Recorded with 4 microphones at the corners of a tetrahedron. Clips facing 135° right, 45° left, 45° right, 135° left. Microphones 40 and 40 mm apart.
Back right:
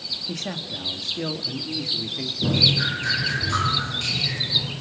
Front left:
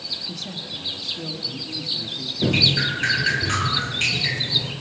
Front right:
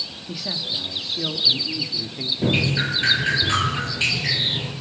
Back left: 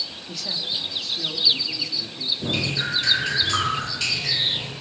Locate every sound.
0.3 s a man speaking: 120° right, 1.9 m; by 2.3 s 100° right, 2.5 m
2.4 s dripping: 15° left, 7 m